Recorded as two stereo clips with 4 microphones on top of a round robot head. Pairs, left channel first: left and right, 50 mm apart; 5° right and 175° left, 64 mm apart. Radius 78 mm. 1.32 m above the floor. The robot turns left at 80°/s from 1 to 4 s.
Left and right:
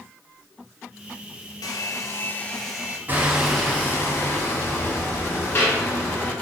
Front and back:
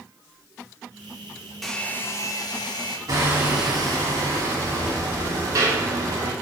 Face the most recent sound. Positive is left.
turn(degrees=135)